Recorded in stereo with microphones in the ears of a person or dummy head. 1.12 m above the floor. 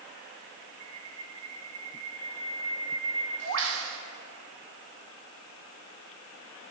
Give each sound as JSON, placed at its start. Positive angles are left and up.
{"t": 0.8, "sound": "a bird", "side_deg": -75, "distance_m": 1.0}